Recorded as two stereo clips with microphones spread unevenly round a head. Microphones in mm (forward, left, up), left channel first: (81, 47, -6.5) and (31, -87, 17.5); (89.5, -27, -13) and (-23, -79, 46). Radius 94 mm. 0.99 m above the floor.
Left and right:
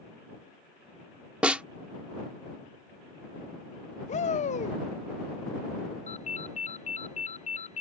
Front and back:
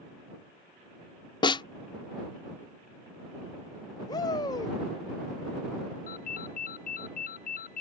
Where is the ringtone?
30° left.